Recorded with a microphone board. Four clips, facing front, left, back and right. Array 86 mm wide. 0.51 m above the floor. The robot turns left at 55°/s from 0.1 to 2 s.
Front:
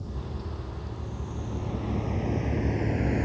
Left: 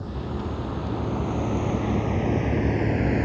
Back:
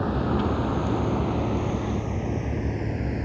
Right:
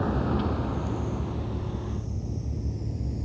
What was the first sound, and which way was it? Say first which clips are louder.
A vehicle: right 5 dB, back 14 dB; 145° right.